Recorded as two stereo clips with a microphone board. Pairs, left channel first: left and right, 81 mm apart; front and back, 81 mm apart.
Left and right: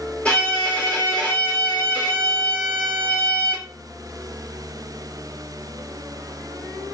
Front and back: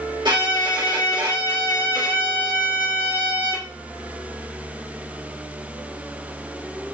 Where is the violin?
165° left, 2.5 m.